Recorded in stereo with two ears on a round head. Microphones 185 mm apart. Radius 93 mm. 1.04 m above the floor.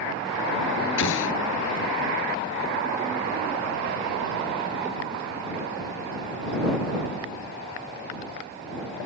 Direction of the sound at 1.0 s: 70° left (ahead or behind).